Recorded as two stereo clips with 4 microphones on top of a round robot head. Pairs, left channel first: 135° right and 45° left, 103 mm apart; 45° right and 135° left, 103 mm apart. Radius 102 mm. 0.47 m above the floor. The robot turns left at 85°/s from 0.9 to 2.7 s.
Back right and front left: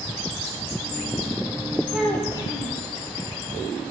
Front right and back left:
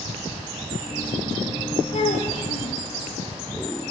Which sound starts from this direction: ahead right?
A child speaking, at 1.9 s.